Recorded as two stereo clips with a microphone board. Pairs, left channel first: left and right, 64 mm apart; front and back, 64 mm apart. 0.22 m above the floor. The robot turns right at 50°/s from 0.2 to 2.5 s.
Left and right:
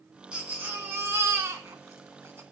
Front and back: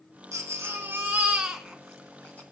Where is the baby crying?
160° right, 1.8 m; by 2.4 s 55° right, 1.8 m.